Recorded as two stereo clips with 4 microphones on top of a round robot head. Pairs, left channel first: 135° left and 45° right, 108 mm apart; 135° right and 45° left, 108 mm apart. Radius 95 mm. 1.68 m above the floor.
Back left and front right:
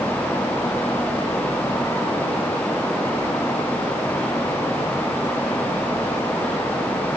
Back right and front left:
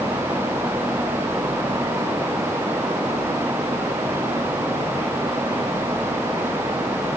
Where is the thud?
I don't hear a thud.